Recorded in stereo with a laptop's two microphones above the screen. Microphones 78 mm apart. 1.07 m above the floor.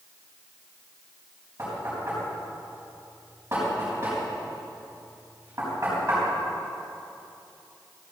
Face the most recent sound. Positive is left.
turn(degrees=-35)  # may be behind; listen again after turning